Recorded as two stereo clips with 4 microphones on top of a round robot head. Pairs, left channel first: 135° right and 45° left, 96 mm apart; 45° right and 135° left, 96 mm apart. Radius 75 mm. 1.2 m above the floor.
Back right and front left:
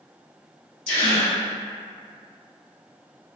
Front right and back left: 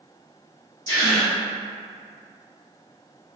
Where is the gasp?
110° right, 0.7 m.